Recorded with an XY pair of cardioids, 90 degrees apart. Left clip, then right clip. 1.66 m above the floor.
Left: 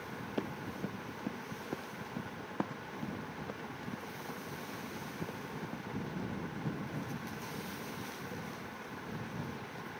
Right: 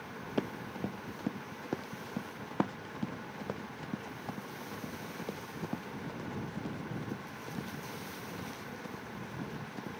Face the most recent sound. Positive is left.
turn(degrees=-55)